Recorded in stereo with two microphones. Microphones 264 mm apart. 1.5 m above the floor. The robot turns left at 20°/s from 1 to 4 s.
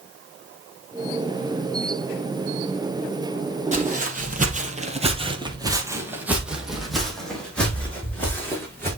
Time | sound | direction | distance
3.7 | footsteps | 25° right (ahead or behind) | 2 m